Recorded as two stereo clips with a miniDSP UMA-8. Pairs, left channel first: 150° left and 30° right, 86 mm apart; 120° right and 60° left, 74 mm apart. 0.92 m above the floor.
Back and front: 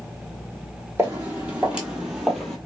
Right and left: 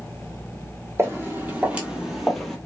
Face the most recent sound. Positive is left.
turn(degrees=-135)